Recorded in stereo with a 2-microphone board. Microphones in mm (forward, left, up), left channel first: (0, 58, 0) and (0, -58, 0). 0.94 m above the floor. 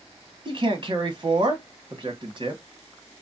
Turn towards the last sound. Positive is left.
turn(degrees=-45)  # may be behind; listen again after turning